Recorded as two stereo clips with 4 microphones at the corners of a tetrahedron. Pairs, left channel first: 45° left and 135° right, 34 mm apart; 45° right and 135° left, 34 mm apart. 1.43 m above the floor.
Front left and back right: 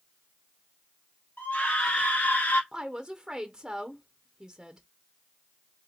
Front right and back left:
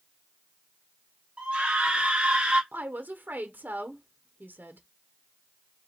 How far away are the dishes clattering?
No dishes clattering in this recording.